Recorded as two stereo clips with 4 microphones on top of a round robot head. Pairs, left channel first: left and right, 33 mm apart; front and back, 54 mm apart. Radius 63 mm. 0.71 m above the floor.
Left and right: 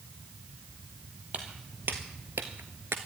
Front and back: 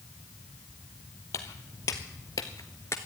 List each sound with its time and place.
1.3 s footsteps: 35° right, 1.6 m; by 3.0 s 50° right, 0.7 m